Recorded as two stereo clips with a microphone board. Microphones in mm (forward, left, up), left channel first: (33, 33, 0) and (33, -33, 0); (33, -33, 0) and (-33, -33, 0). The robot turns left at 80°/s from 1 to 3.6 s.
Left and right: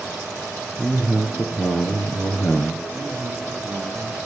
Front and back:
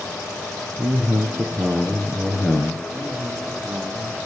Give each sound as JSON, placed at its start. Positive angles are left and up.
{"t": 0.8, "sound": "a man speaking", "azimuth_deg": -175, "distance_m": 2.5}
{"t": 2.9, "sound": "a man speaking", "azimuth_deg": -85, "distance_m": 8.5}